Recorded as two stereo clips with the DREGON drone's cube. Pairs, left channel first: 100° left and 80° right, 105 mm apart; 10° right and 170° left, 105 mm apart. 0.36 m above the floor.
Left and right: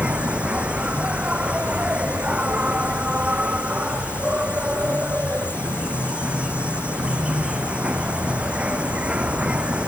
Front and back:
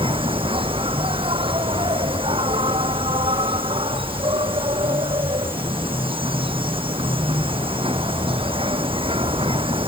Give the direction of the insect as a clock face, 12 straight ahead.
5 o'clock.